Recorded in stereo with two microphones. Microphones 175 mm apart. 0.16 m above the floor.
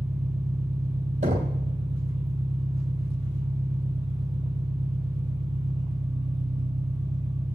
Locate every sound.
0.0 s an engine running: 25° right (ahead or behind), 3.5 m
1.2 s knocking: 45° right (ahead or behind), 3.5 m